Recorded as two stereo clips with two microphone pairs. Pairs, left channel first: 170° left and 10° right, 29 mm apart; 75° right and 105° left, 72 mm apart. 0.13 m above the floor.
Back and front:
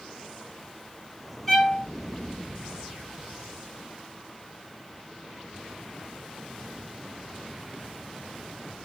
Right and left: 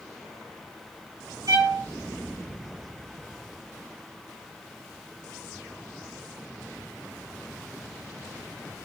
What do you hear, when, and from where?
1.5 s a violin: 95° left, 2 m